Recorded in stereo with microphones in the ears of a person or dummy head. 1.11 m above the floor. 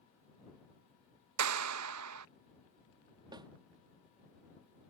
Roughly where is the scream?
No scream in this recording.